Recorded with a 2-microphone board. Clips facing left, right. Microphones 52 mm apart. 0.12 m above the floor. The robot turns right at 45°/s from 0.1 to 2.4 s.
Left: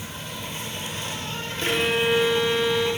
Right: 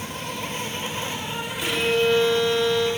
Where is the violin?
120° left, 1.0 m; by 2.9 s 155° left, 1.0 m.